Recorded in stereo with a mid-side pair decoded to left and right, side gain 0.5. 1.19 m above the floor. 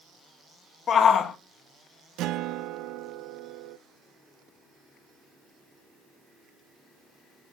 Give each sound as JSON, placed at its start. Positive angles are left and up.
{"t": 0.9, "sound": "a shout", "azimuth_deg": 50, "distance_m": 2.0}
{"t": 2.2, "sound": "a guitar", "azimuth_deg": -70, "distance_m": 0.5}